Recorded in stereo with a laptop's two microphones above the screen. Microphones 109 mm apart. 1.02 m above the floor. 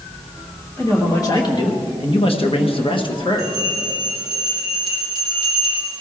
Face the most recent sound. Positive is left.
turn(degrees=45)  # may be behind; listen again after turning